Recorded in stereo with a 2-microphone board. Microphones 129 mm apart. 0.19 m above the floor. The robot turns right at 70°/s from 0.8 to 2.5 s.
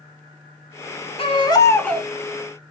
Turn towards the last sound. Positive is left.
turn(degrees=-150)